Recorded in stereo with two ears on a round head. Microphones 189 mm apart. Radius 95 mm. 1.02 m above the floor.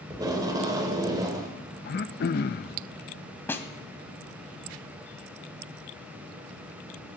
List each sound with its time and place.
0.1 s tape being pulled: 20° right (ahead or behind), 2.5 m
1.9 s throat clearing: 45° left (ahead or behind), 0.5 m
3.5 s a snare drum: 10° left (ahead or behind), 1.4 m